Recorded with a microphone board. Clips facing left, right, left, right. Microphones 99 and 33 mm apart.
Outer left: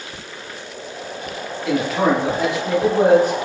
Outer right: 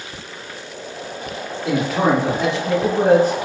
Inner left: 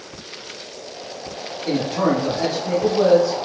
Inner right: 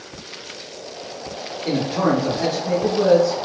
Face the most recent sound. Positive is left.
turn(degrees=30)  # may be behind; listen again after turning